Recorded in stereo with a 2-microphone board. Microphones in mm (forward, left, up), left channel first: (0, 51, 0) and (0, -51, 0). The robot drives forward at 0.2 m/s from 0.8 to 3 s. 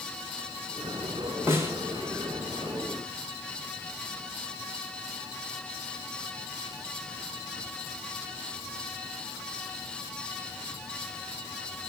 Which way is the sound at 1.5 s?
25° right (ahead or behind).